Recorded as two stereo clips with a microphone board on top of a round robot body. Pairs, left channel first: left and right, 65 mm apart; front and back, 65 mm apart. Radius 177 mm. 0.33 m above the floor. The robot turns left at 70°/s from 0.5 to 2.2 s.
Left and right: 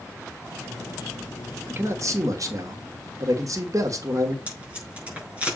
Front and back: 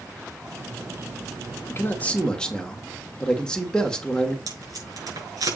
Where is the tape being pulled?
160° right, 5.5 m.